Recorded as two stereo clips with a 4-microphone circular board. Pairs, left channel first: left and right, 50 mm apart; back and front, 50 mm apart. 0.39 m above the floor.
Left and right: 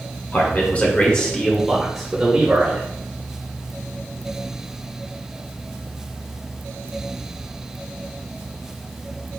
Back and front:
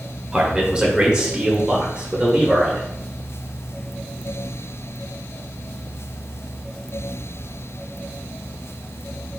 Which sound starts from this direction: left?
A man speaking, at 0.3 s.